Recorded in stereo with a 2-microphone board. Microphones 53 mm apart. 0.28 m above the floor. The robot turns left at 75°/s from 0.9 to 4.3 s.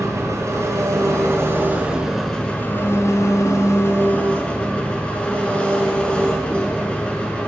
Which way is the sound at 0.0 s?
85° right.